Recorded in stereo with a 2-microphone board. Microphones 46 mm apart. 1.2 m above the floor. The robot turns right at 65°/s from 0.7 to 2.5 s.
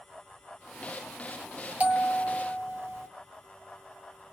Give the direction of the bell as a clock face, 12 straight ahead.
5 o'clock.